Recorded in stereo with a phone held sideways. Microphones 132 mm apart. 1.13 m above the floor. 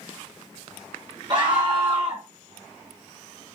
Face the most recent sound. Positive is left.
turn(degrees=-35)  # may be behind; listen again after turning